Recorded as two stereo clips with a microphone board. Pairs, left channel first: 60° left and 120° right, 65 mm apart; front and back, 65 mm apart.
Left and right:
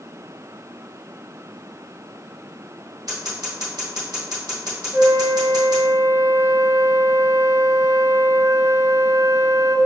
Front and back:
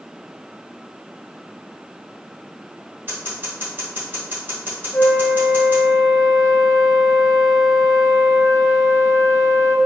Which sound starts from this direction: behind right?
Scissors, at 3.1 s.